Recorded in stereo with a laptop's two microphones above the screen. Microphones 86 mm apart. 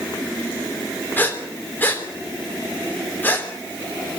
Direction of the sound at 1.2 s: 20° left (ahead or behind).